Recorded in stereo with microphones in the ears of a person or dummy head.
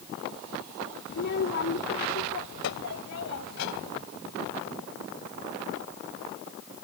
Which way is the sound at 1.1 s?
60° left (ahead or behind).